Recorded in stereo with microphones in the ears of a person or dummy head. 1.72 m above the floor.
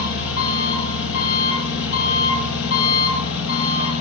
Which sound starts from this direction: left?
An engine running, at 0.0 s.